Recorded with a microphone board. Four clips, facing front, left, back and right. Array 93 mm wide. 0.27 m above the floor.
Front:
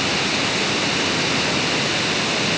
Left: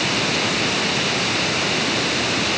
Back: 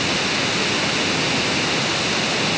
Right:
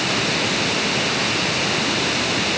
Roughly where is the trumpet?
No trumpet in this recording.